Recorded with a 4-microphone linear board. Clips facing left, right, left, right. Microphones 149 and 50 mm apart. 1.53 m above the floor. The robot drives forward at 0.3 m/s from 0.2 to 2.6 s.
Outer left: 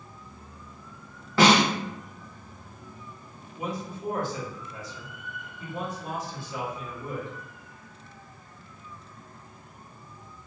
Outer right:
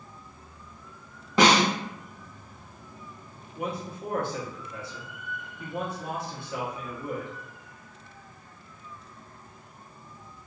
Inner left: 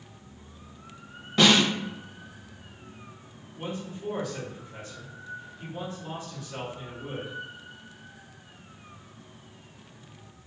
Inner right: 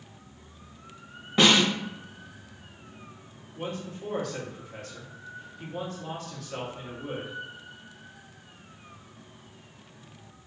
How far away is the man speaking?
About 1.0 m.